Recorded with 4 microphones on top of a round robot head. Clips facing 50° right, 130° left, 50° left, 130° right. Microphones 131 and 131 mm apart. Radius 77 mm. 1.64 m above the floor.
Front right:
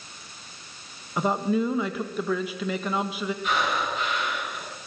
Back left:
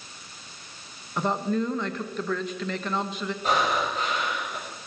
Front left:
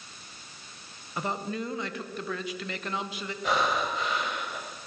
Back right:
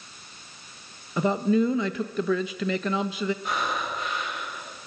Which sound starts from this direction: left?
Breathing, at 3.4 s.